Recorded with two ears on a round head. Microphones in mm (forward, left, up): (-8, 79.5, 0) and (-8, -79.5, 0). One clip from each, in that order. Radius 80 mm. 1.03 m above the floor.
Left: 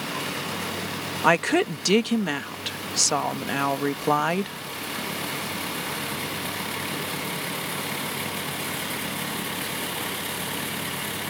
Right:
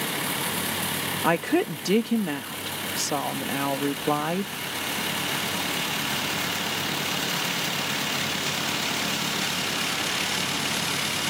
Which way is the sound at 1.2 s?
35° left (ahead or behind).